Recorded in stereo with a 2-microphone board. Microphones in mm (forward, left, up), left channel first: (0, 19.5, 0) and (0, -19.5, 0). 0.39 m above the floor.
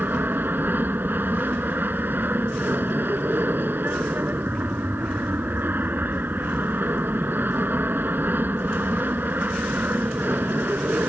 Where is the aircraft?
60° right (ahead or behind).